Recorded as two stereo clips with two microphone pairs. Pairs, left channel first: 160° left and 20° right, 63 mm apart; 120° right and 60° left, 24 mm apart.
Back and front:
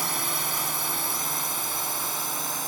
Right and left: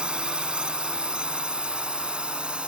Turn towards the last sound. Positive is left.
turn(degrees=70)